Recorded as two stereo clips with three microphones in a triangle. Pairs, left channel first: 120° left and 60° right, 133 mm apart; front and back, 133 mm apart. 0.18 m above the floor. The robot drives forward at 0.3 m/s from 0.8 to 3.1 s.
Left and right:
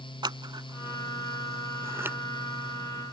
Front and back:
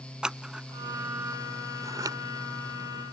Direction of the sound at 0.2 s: 100° right.